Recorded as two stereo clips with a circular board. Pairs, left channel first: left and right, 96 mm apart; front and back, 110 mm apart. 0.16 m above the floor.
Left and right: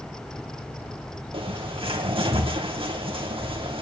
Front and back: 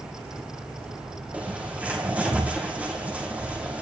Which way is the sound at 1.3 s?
100° right.